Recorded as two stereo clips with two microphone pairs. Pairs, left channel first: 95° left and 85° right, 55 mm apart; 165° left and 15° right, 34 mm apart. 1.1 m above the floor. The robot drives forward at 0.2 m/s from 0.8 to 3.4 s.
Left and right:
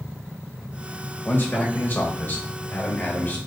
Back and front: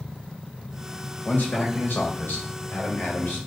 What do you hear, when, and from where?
1.2 s a man speaking: 140° left, 1.2 m; by 3.4 s 150° left, 1.5 m